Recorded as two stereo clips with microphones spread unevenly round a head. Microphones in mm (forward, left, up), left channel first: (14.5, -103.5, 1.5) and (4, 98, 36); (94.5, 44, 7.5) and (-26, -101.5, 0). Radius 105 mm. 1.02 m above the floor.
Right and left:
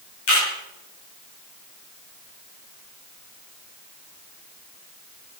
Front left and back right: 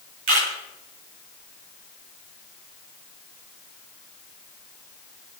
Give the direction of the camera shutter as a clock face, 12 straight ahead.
4 o'clock.